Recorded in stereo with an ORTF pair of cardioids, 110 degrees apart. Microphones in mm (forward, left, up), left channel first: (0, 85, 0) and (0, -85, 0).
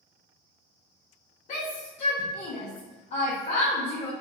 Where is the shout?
45° left, 0.9 m.